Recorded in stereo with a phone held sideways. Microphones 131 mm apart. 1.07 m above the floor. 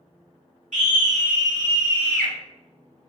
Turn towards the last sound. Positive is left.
turn(degrees=-90)